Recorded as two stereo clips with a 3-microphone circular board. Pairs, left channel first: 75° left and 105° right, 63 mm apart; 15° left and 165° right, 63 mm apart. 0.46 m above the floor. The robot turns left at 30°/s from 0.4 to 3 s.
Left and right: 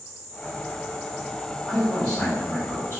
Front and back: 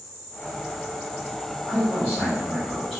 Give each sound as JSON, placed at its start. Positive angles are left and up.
{"t": 1.7, "sound": "a man speaking", "azimuth_deg": 155, "distance_m": 1.5}